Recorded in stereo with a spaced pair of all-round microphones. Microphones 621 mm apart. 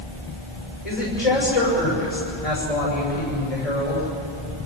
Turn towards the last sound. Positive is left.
turn(degrees=80)